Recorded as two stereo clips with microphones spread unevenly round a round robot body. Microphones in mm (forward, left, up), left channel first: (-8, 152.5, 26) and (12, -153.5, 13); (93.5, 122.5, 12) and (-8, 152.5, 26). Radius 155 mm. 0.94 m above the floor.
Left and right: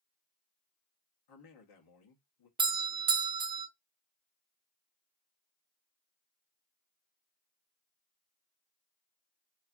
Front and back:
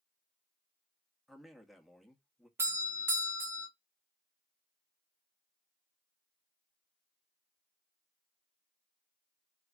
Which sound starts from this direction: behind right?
A doorbell, at 2.6 s.